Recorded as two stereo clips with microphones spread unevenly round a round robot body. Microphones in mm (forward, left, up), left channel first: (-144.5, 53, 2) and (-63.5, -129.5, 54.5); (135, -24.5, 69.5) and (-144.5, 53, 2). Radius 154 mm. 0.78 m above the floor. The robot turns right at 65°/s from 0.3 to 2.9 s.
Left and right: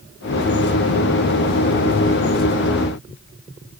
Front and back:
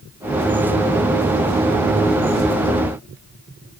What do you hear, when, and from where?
Only background noise.